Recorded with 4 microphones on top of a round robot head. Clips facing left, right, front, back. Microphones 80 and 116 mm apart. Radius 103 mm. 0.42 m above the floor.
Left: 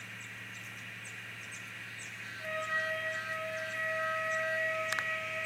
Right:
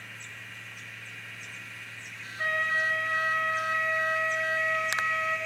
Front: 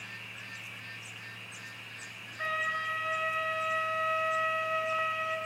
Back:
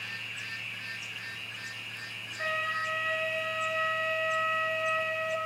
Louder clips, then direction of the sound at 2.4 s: Right 7 dB, back 1 dB; 80° right.